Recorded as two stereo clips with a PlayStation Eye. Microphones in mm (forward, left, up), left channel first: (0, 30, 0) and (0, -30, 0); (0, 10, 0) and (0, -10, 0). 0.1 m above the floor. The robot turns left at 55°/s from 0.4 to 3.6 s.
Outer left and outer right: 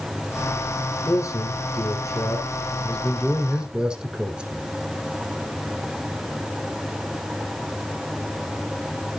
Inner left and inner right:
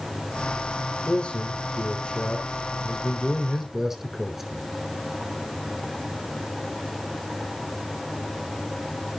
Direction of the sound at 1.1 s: 130° left.